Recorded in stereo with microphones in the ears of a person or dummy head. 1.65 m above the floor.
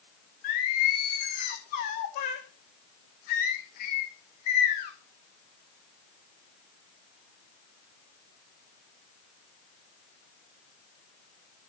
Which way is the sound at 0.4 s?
40° left (ahead or behind).